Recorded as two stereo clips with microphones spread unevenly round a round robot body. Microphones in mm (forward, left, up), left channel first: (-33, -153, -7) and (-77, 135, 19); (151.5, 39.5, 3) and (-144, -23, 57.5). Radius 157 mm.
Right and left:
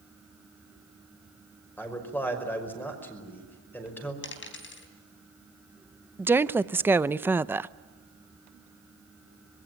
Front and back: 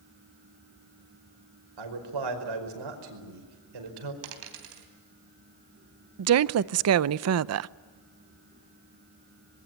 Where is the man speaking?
165° right, 5.5 m.